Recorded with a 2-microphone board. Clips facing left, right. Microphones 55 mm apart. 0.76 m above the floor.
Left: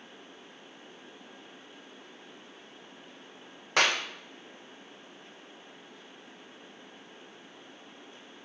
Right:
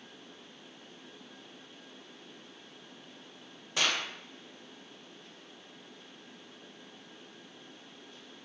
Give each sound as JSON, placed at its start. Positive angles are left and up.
{"t": 3.8, "sound": "a clap", "side_deg": 75, "distance_m": 3.0}